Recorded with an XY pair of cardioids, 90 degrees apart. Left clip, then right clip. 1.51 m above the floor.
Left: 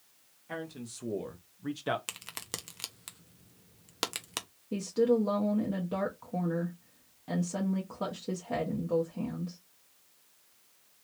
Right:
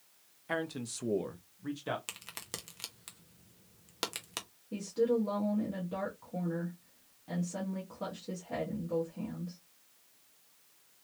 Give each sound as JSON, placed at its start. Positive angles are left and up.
{"t": 0.5, "sound": "a man speaking", "azimuth_deg": -60, "distance_m": 1.0}
{"t": 2.1, "sound": "a crack", "azimuth_deg": 25, "distance_m": 0.7}
{"t": 4.7, "sound": "a woman speaking", "azimuth_deg": 50, "distance_m": 1.0}